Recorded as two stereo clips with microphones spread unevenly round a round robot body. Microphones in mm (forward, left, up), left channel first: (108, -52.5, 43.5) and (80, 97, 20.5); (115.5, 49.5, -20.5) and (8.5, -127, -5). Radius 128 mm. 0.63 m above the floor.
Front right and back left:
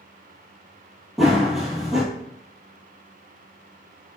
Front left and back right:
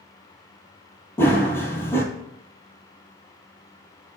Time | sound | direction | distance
1.2 | running footsteps | 10° right | 0.6 m